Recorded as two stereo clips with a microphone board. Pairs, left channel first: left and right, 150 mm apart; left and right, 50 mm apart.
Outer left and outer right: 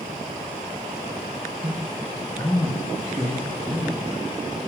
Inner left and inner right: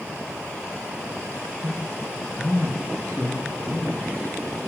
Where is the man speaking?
30° right (ahead or behind), 0.9 m; by 4.0 s 45° left (ahead or behind), 2.5 m.